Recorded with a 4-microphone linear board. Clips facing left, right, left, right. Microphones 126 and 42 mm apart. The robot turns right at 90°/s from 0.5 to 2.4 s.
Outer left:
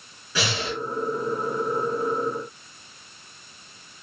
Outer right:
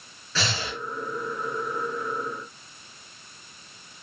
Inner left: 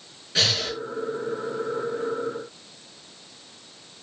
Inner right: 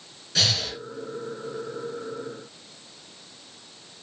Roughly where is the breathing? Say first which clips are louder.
Outer left 3 dB, inner left 1 dB; centre.